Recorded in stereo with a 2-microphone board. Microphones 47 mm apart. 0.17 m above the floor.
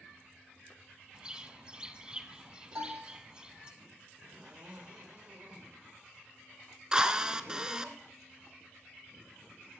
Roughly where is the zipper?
Right.